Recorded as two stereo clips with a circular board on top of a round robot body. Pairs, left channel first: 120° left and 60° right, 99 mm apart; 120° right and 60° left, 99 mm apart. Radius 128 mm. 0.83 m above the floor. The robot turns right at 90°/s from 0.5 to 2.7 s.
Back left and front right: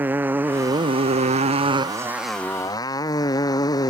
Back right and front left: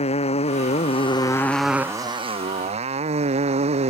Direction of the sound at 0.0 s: 130° right.